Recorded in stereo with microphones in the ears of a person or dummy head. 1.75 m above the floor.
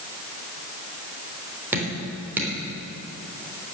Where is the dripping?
10° right (ahead or behind), 3.5 m.